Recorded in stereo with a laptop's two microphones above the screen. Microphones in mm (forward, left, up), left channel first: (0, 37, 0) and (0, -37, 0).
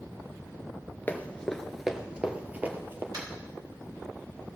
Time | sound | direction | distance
1.1 | running footsteps | 25° left (ahead or behind) | 1.1 m
3.1 | tapping | 60° right (ahead or behind) | 4 m